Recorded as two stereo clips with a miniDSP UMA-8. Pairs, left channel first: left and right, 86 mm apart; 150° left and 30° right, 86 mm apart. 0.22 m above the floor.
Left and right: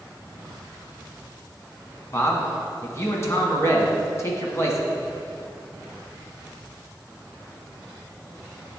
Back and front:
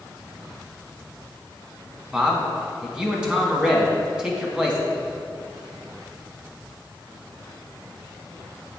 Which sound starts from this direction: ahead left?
A man speaking, at 2.1 s.